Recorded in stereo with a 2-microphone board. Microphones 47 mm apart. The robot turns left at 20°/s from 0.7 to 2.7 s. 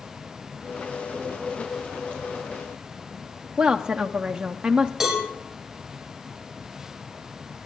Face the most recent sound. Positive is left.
turn(degrees=-10)  # may be behind; listen again after turning